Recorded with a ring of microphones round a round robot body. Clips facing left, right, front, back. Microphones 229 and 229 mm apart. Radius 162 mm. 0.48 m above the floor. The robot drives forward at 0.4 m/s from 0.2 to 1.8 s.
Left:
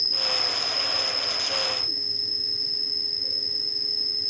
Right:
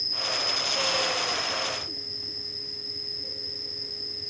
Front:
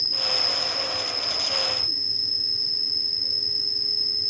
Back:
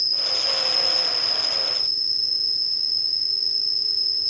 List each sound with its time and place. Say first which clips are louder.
0.0 s an insect: left 1 dB, front 2 dB; 135° left, 1.1 m; by 4.3 s 160° left, 1.4 m